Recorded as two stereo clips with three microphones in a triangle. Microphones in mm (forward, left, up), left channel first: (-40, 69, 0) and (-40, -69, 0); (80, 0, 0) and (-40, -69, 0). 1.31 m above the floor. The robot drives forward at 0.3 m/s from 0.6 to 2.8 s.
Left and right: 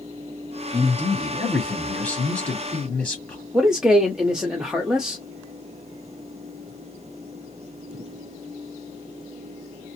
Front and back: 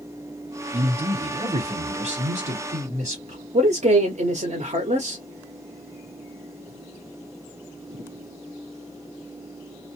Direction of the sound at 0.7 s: 160° left.